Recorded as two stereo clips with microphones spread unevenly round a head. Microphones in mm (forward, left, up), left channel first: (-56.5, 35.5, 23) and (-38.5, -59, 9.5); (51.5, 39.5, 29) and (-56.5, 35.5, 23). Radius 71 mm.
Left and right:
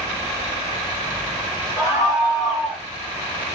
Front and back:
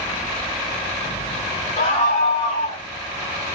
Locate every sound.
1.8 s a scream: 35° left, 7 m; by 2.8 s 40° left, 8 m